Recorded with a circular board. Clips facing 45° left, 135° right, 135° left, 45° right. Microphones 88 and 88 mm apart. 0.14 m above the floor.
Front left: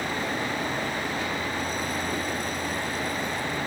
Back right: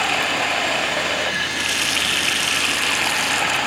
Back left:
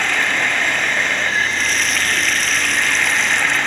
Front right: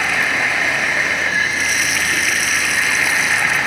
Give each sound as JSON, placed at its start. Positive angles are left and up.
{"t": 0.0, "sound": "running water", "azimuth_deg": -130}